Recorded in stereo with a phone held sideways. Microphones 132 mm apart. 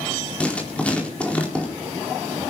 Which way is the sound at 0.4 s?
10° left (ahead or behind).